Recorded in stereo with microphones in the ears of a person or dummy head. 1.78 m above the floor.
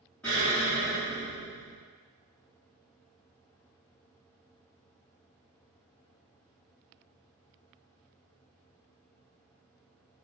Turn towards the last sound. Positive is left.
turn(degrees=5)  # may be behind; listen again after turning